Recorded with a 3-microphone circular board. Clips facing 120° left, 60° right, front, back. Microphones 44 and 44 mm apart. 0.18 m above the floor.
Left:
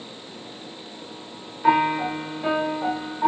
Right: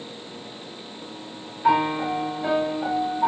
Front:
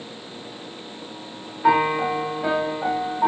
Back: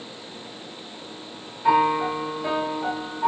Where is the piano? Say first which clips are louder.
Left 1 dB, front 1 dB; 45° left, 8.5 m.